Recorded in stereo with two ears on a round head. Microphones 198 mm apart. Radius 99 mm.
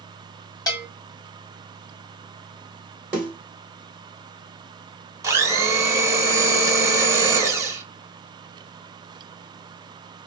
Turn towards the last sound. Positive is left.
turn(degrees=-15)  # may be behind; listen again after turning